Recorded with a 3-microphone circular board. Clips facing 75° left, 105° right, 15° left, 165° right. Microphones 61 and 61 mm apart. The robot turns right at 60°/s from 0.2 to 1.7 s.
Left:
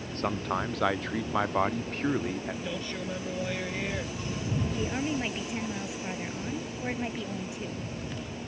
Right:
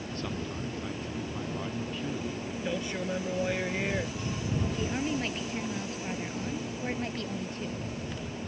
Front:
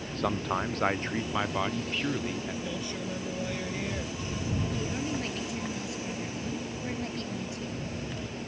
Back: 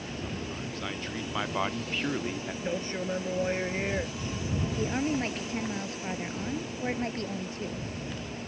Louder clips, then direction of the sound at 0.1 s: Left 8 dB, front 10 dB; 25° left.